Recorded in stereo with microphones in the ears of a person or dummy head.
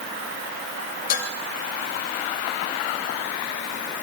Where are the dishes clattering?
60° left (ahead or behind), 3 m.